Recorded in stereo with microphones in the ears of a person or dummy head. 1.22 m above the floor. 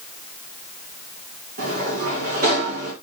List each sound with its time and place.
1.6 s a sliding door: 50° right (ahead or behind), 3.5 m